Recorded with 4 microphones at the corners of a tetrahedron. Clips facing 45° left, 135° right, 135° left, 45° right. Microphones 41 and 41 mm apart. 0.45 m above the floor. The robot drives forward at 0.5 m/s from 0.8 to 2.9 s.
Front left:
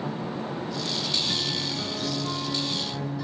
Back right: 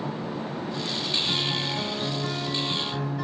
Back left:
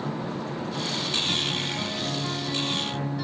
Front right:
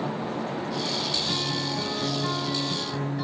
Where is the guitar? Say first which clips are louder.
Back right 2 dB, back left 1 dB; 110° right, 2 m; by 3.2 s 135° right, 2.5 m.